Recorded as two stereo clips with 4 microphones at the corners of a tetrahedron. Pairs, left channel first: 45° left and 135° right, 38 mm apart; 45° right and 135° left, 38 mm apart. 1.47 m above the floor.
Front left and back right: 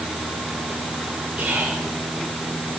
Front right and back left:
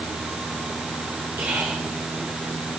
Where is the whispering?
160° left, 2.5 m.